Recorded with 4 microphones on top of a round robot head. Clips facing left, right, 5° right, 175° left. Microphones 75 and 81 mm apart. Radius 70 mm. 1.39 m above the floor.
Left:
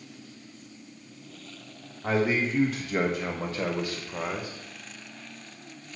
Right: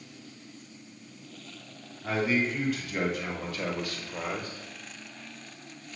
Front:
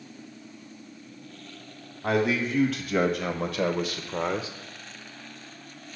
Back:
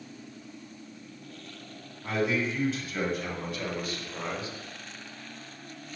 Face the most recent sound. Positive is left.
turn(degrees=5)